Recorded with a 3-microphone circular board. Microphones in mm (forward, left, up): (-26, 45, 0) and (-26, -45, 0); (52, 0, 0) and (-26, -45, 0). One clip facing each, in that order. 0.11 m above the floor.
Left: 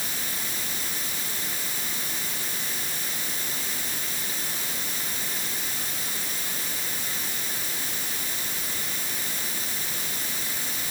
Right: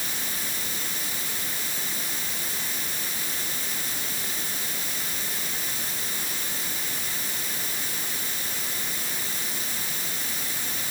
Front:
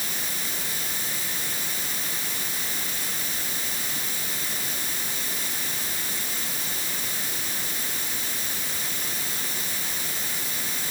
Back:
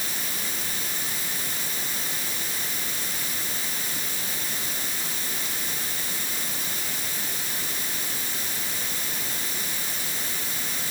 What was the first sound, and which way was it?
Only background noise.